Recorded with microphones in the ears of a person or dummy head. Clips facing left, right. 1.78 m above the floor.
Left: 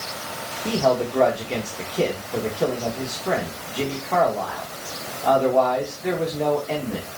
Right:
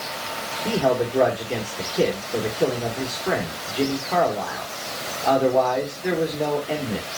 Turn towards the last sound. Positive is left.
turn(degrees=-5)  # may be behind; listen again after turning